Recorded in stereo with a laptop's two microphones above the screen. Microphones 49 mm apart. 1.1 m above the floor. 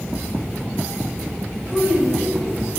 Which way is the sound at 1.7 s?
40° right (ahead or behind).